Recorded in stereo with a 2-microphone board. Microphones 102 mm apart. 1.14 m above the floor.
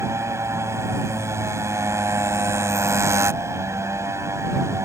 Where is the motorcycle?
30° right (ahead or behind).